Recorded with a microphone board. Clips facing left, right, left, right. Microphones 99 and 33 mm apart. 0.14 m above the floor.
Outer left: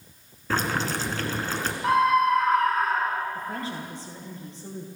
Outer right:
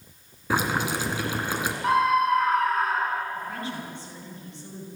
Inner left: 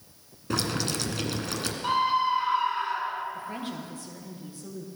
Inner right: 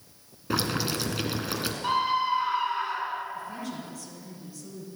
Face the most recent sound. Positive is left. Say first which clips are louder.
# outer left 1 dB, inner left 1 dB
turn(degrees=35)  # may be behind; listen again after turning